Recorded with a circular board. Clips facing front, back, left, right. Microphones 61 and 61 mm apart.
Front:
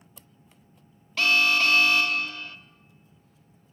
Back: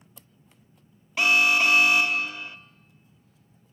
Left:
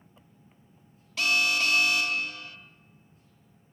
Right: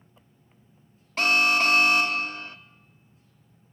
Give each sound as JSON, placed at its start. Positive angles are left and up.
{"t": 1.2, "sound": "an alarm", "azimuth_deg": -115, "distance_m": 1.0}